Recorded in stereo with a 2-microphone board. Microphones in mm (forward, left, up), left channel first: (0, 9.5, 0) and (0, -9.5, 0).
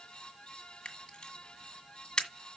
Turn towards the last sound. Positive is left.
turn(degrees=40)  # may be behind; listen again after turning